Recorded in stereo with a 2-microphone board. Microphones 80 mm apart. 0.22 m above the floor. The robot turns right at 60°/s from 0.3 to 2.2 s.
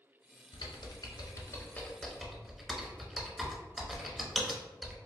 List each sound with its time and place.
0.5 s typing on a keyboard: 75° left (ahead or behind), 0.7 m; by 5.0 s centre (ahead or behind), 0.7 m